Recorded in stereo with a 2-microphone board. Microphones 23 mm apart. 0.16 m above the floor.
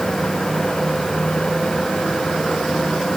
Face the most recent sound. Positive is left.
No sound to turn to.